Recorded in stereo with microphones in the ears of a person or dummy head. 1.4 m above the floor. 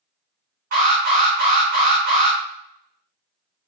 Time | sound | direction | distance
0.7 | an alarm | 45° right (ahead or behind) | 2.5 m